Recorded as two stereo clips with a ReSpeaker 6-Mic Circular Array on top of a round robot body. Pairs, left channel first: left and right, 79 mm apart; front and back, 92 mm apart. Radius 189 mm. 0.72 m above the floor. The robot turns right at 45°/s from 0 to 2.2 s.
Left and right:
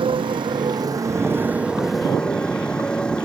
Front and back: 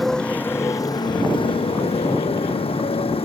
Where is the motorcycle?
90° right; by 3.2 s 10° left.